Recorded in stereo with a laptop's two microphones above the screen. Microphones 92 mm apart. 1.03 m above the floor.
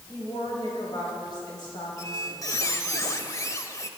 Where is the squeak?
30° left (ahead or behind), 0.9 m.